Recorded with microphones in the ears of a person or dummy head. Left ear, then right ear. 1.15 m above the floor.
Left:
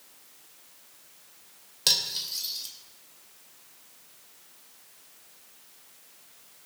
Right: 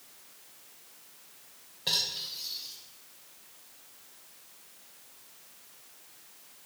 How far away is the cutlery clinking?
About 2.5 m.